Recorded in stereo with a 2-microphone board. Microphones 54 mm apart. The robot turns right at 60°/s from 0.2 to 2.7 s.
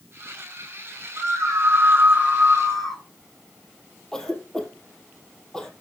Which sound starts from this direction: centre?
A cough, at 4.1 s.